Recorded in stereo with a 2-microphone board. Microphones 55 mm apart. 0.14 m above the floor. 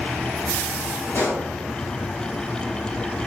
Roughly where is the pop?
Left.